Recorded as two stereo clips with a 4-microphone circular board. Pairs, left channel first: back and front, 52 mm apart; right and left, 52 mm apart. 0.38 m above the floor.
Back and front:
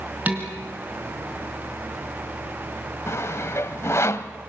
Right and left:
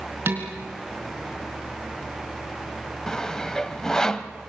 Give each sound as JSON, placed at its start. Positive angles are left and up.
{"t": 0.3, "sound": "dishes clattering", "azimuth_deg": 55, "distance_m": 3.5}
{"t": 3.1, "sound": "sawing", "azimuth_deg": -165, "distance_m": 1.0}